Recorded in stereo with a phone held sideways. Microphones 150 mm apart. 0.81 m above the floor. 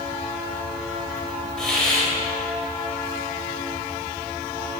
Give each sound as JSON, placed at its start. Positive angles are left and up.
{"t": 1.6, "sound": "a hiss", "side_deg": 5, "distance_m": 3.0}